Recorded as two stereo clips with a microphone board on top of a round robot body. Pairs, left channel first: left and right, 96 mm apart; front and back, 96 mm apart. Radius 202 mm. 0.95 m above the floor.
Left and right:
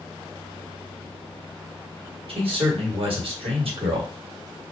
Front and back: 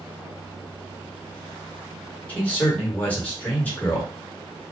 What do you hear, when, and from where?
2.3 s a man speaking: 75° right, 1.6 m